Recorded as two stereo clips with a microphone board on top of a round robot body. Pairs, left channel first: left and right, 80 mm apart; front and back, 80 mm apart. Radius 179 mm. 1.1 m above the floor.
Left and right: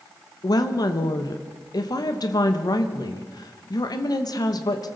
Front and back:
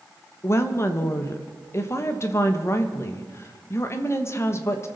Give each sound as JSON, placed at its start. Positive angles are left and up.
{"t": 0.4, "sound": "a woman speaking", "azimuth_deg": 55, "distance_m": 1.1}